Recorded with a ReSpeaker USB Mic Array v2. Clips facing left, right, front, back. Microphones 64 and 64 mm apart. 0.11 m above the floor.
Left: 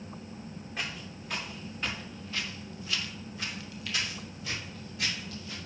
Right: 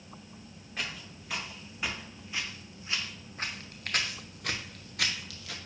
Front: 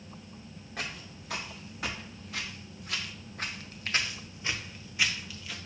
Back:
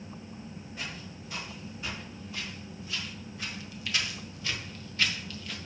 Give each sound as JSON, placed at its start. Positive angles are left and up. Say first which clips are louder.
{"t": 0.8, "sound": "footsteps", "louder": "even, front 3 dB", "azimuth_deg": 5, "distance_m": 2.0}